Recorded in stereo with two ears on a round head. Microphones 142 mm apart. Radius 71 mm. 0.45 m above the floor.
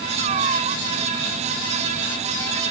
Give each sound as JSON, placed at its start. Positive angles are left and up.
{"t": 0.2, "sound": "a cat meowing", "side_deg": -40}